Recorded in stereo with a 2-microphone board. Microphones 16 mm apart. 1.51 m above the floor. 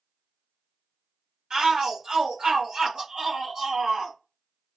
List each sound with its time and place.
1.5 s a shout: 80° right, 1.4 m